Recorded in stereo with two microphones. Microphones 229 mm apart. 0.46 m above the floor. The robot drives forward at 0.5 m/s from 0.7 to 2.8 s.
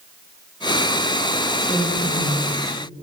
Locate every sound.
1.7 s a woman speaking: 10° right (ahead or behind), 0.7 m